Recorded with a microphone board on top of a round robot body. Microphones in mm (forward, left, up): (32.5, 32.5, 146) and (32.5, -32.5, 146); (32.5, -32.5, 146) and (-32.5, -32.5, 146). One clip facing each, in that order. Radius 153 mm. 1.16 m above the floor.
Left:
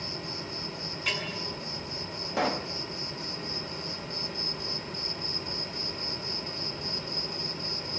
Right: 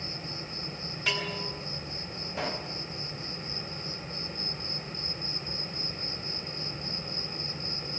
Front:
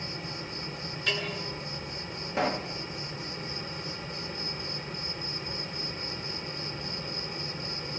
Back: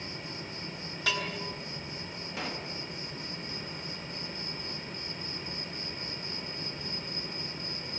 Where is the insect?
90° left, 5 m.